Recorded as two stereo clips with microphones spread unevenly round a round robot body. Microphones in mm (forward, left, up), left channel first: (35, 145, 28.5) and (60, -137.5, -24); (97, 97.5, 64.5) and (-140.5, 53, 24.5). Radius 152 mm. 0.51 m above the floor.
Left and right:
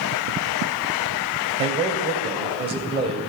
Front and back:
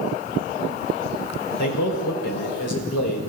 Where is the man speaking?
20° right, 2 m.